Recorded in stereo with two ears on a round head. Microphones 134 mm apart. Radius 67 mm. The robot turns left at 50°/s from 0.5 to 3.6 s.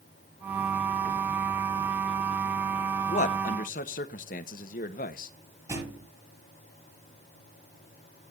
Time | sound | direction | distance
3.1 | a man speaking | 50° left (ahead or behind) | 1.1 m
5.7 | a thud | 25° right (ahead or behind) | 8 m